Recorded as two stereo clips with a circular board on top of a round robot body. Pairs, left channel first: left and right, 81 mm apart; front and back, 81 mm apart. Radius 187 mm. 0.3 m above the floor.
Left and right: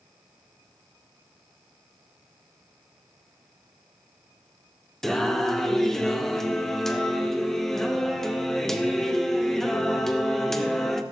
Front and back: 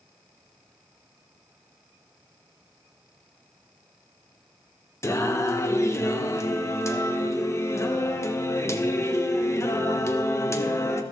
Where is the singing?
10° left, 1.4 m.